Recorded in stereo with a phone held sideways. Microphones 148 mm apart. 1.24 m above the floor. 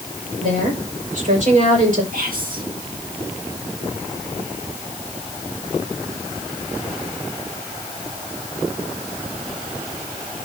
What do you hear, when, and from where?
0.4 s a woman speaking: 60° right (ahead or behind), 5 m
2.1 s whispering: 70° right (ahead or behind), 2 m